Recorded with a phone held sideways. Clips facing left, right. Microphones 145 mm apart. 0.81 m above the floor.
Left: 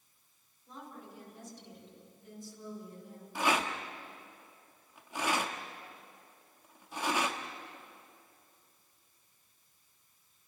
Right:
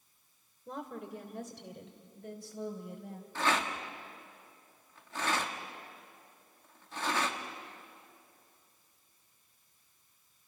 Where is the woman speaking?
75° right (ahead or behind), 3 m; by 3.2 s 80° right, 4.5 m.